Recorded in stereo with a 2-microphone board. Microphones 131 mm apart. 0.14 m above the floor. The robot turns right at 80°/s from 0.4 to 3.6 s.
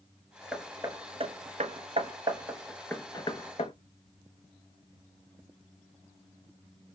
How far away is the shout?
I don't hear a shout.